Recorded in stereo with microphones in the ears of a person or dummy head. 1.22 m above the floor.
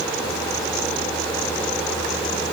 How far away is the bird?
No bird in this recording.